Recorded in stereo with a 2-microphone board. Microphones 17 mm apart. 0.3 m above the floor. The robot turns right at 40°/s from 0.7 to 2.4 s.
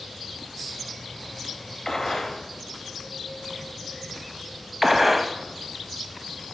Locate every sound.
1.9 s a gunshot: 30° left (ahead or behind), 1.3 m; by 2.4 s 35° left (ahead or behind), 1.3 m
4.8 s a gunshot: 10° right (ahead or behind), 0.6 m